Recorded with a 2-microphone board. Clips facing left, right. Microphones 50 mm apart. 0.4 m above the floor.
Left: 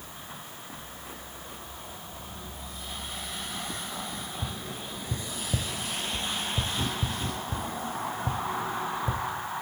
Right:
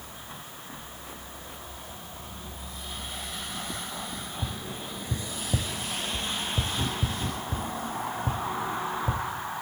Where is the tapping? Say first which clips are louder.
Right 1 dB; 15° right (ahead or behind), 0.8 m.